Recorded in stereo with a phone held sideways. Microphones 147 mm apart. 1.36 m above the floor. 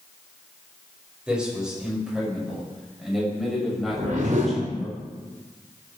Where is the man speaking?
5° right (ahead or behind), 7.5 m; by 4.9 s centre (ahead or behind), 10 m.